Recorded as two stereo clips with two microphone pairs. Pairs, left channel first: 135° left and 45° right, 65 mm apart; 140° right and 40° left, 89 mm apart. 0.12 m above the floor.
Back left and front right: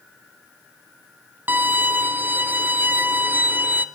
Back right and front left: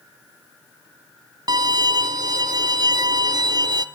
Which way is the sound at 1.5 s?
15° left.